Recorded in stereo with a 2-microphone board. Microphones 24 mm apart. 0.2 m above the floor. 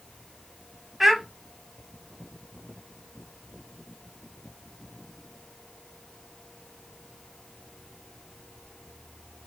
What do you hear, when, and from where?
1.0 s a child speaking: 15° right (ahead or behind), 0.6 m